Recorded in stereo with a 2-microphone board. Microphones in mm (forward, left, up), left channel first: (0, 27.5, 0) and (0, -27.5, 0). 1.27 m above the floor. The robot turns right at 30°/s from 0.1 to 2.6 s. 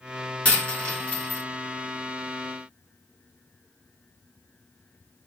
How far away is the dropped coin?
About 1.2 m.